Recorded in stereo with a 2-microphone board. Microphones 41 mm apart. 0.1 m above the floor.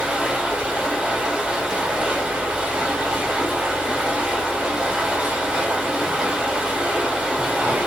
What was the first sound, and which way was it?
Running water, 25° right (ahead or behind).